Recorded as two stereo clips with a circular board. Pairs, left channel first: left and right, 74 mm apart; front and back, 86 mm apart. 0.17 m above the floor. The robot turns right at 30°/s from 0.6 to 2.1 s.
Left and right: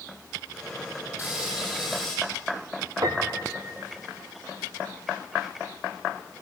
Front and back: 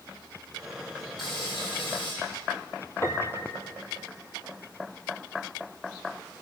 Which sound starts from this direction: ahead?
Frying, at 1.2 s.